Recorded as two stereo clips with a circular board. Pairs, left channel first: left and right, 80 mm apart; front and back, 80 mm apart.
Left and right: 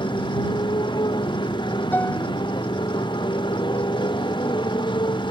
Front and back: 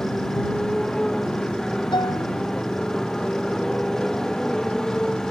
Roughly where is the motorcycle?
Left.